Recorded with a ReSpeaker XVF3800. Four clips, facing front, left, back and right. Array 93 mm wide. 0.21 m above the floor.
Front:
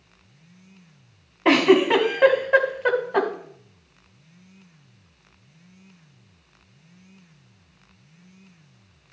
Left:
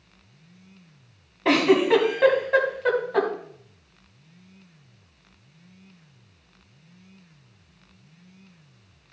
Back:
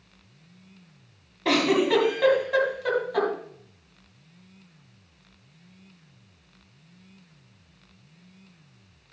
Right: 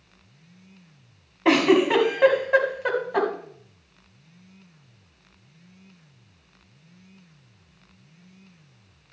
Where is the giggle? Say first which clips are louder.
Even, front 5 dB; 15° right, 1.8 m.